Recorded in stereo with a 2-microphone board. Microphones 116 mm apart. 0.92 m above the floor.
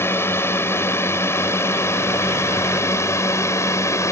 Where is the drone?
20° left (ahead or behind); by 4.1 s 25° left (ahead or behind).